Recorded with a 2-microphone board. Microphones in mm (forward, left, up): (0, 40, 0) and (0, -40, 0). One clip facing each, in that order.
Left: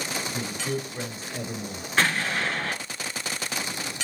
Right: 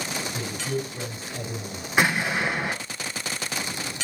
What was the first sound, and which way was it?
A man speaking, 30° left (ahead or behind).